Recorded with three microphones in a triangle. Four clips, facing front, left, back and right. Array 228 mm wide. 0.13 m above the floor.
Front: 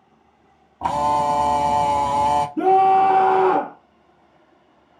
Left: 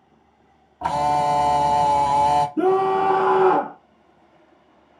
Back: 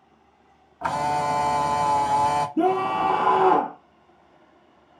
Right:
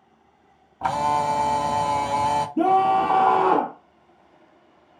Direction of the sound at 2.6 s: 115° right.